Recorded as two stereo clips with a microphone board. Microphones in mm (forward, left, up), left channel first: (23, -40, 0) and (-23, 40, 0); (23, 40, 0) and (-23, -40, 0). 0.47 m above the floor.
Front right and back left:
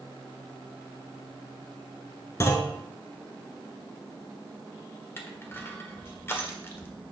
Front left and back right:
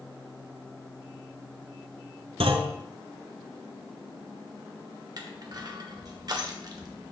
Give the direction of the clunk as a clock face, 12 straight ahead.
4 o'clock.